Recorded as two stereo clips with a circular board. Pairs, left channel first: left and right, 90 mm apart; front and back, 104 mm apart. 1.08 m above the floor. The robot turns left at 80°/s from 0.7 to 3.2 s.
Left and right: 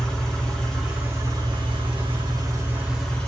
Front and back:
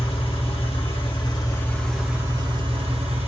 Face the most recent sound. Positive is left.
turn(degrees=165)